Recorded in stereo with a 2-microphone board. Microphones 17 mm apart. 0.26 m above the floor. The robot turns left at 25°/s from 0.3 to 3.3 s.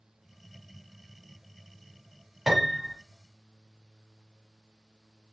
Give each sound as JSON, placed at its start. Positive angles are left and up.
{"t": 2.5, "sound": "a piano", "side_deg": -20, "distance_m": 1.0}